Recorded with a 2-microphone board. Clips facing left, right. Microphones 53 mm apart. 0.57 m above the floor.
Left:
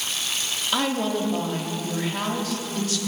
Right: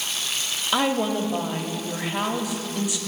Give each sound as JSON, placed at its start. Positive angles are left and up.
{"t": 0.7, "sound": "a woman speaking", "side_deg": -15, "distance_m": 0.7}